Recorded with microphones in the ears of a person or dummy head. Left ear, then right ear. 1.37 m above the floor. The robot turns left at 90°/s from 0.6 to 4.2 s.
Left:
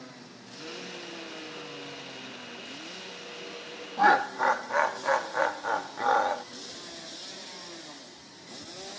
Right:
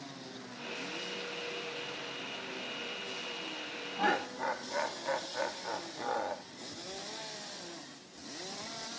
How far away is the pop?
No pop in this recording.